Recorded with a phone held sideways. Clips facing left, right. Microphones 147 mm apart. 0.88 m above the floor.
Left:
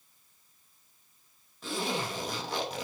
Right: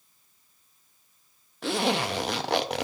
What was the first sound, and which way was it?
A zipper, 75° right (ahead or behind).